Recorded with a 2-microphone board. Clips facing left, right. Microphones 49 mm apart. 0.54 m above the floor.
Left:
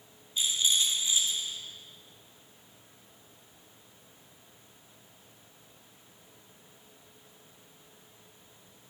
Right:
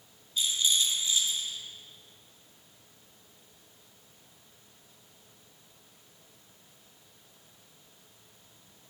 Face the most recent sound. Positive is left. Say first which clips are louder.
# even
turn(degrees=20)  # may be behind; listen again after turning